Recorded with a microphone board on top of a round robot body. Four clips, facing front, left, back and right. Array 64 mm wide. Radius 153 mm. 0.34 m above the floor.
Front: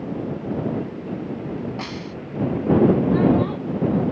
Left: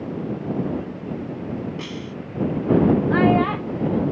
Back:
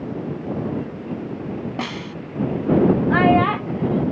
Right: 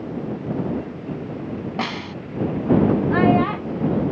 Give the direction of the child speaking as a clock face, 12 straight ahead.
6 o'clock.